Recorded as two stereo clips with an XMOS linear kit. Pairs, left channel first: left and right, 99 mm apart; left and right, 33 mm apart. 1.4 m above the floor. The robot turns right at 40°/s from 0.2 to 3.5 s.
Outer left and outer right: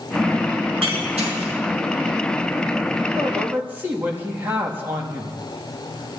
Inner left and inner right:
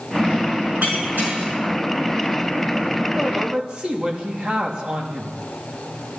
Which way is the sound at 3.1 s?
35° right (ahead or behind).